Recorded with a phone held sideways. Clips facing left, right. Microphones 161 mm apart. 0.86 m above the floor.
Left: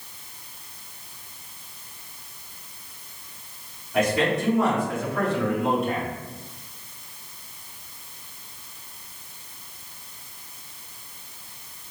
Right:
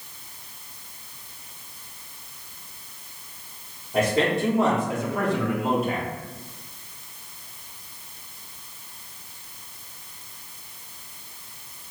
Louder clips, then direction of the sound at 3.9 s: Even; 35° right (ahead or behind).